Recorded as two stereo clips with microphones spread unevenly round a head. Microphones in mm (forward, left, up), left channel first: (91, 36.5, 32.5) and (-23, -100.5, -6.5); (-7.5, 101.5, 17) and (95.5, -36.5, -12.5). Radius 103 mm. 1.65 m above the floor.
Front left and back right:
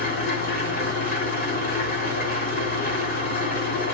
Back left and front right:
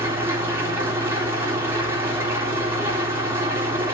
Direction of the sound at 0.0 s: 25° left.